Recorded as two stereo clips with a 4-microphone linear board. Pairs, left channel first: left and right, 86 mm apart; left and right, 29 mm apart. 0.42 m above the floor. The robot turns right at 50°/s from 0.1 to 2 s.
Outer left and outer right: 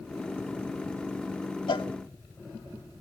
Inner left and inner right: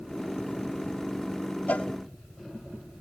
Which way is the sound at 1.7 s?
70° left (ahead or behind).